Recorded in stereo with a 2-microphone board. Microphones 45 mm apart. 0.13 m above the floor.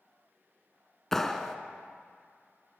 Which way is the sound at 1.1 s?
10° left (ahead or behind).